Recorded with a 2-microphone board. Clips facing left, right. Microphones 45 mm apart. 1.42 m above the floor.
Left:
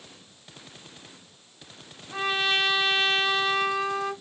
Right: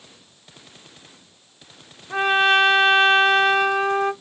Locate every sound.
2.1 s a trumpet: 40° right (ahead or behind), 0.9 m